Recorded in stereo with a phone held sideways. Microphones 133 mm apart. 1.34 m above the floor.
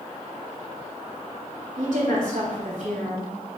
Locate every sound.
1.8 s a woman speaking: 65° right (ahead or behind), 3 m